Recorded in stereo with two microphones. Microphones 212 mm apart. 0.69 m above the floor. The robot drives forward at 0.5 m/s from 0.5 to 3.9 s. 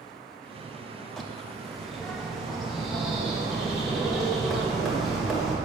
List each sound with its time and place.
1.2 s a bird: centre (ahead or behind), 0.6 m